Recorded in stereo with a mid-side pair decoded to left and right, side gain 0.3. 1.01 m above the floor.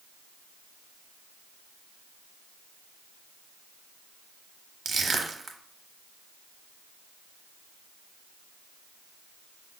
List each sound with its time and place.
4.8 s crushing: 70° right, 0.7 m